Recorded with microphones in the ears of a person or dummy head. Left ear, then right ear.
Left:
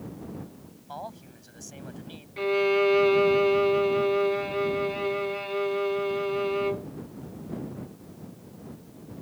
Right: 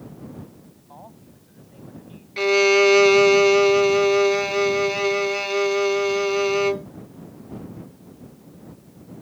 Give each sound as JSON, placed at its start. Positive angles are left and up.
{"t": 0.9, "sound": "a man speaking", "side_deg": 80}
{"t": 2.4, "sound": "a violin", "side_deg": -80}